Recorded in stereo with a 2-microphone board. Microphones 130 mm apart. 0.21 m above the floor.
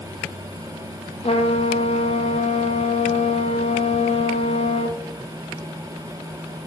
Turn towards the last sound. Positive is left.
turn(degrees=50)  # may be behind; listen again after turning